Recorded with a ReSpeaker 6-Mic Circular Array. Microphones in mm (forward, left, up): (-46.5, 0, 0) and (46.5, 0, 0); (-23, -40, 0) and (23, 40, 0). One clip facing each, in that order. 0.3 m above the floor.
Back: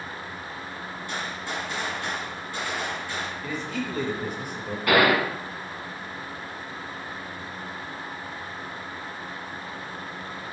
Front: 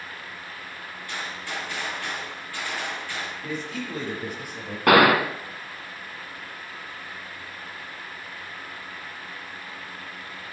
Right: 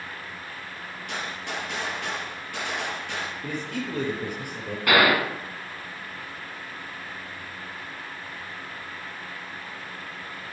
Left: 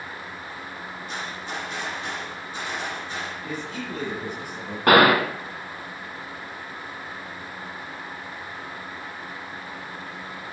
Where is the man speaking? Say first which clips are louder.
Back 1 dB, right 1 dB; 85° right, 5.5 m.